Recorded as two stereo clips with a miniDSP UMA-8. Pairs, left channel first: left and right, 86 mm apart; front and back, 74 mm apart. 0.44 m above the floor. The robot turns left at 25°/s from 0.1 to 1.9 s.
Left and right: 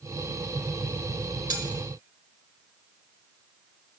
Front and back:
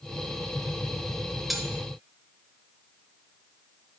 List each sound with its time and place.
1.5 s cutlery clinking: 90° right, 0.9 m; by 1.7 s 95° right, 0.9 m